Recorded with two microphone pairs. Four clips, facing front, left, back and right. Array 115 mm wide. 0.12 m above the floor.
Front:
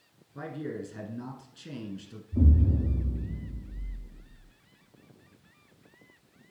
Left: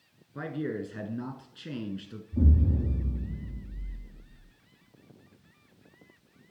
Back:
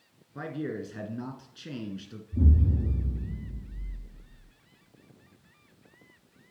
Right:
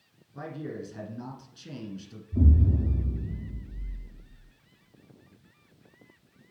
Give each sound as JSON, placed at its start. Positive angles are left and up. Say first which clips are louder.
{"t": 0.3, "sound": "a man speaking", "louder": "left 4 dB, back 2 dB", "azimuth_deg": 135, "distance_m": 1.6}
{"t": 2.3, "sound": "an explosion", "louder": "right 1 dB, front 2 dB", "azimuth_deg": -45, "distance_m": 3.5}